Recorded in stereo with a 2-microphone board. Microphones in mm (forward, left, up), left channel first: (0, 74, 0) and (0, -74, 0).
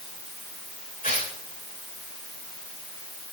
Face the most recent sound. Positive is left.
turn(degrees=60)  # may be behind; listen again after turning